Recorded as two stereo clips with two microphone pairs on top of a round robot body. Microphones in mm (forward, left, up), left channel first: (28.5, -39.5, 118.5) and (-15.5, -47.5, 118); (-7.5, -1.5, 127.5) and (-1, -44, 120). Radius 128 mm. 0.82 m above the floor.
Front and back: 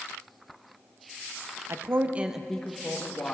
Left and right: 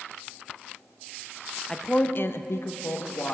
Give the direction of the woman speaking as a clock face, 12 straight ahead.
6 o'clock.